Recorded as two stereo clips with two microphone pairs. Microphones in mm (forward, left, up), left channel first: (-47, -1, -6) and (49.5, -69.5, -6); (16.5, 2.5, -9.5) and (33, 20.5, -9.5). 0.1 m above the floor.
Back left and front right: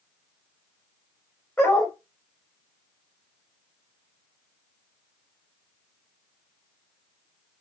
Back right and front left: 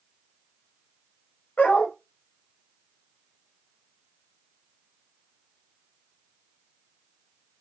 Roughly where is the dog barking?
Behind right.